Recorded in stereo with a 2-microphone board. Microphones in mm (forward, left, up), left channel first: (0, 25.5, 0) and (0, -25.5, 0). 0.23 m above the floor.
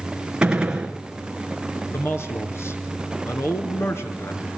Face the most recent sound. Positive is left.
turn(degrees=60)  # may be behind; listen again after turning